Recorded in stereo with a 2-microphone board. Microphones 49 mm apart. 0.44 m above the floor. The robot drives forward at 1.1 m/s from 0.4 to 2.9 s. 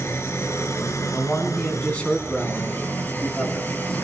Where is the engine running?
60° left (ahead or behind), 1.9 m; by 4.0 s 45° left (ahead or behind), 2.5 m.